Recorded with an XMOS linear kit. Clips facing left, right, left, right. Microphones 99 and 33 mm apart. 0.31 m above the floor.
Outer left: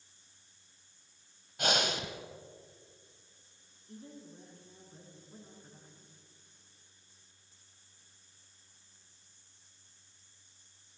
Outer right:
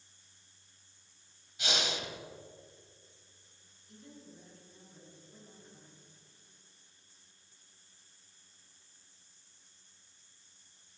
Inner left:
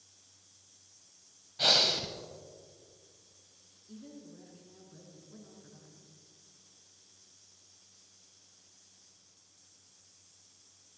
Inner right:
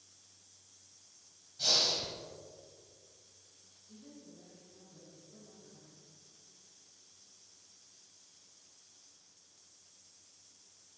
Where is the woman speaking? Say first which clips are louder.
Outer left 4 dB, inner left 5 dB; 35° left (ahead or behind), 4 m.